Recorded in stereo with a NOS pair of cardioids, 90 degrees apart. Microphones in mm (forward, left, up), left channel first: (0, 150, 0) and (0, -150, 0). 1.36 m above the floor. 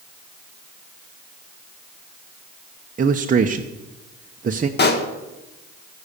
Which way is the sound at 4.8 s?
40° left.